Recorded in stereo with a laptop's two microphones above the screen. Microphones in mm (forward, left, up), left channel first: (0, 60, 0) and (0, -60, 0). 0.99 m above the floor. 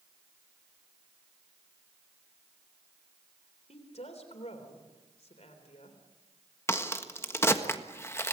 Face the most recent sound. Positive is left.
turn(degrees=20)  # may be behind; listen again after turning